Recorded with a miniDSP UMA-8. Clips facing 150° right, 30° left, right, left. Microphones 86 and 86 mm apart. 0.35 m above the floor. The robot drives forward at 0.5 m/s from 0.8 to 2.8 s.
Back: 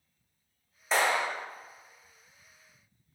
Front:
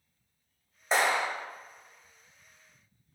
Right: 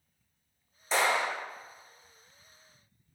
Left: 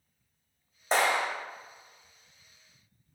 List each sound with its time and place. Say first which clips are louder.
0.9 s a clap: even, left 1 dB; 95° left, 1.6 m; by 1.3 s 105° left, 1.6 m